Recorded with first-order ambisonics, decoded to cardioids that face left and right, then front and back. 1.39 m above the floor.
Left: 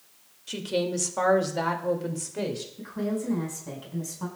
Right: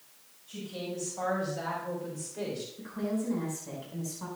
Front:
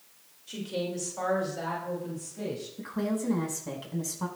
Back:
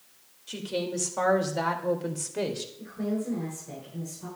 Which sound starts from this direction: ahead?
A woman speaking, at 2.8 s.